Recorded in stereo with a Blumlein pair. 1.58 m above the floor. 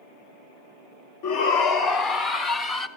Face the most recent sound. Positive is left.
turn(degrees=25)